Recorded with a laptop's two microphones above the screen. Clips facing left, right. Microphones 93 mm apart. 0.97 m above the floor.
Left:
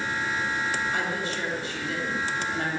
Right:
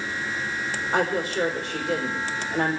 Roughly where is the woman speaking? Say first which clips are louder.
Right 5 dB; right.